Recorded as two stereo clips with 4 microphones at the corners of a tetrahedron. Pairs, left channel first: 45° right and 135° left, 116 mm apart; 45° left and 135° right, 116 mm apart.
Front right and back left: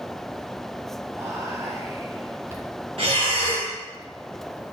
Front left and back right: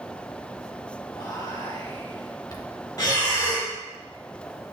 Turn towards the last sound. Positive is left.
turn(degrees=100)